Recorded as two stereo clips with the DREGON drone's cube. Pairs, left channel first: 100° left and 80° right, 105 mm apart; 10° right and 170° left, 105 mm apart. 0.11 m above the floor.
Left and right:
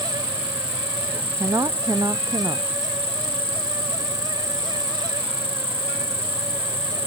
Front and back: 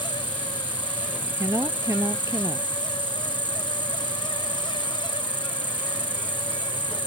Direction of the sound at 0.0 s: 100° left.